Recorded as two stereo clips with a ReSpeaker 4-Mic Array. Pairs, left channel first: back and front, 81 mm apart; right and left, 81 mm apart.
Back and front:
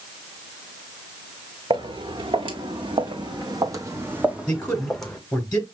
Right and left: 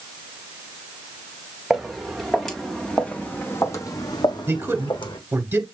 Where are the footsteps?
5° left, 1.5 m; by 5.2 s 100° right, 1.0 m.